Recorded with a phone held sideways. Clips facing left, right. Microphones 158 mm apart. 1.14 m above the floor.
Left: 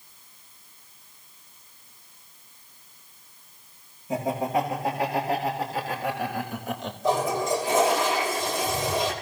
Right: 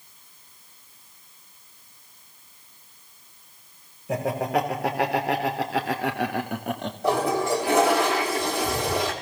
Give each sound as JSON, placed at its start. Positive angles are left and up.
{"t": 4.1, "sound": "laughter", "side_deg": -75, "distance_m": 4.5}
{"t": 7.0, "sound": "a toilet flushing", "side_deg": -70, "distance_m": 4.0}